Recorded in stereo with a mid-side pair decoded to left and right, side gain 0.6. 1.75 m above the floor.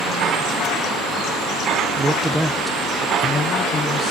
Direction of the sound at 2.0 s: 30° right.